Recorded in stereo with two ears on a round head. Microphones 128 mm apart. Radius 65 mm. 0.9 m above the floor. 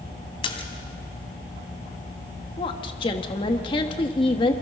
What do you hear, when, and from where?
0.4 s a splash: 40° left (ahead or behind), 2.5 m
2.6 s a woman speaking: 35° left (ahead or behind), 1.5 m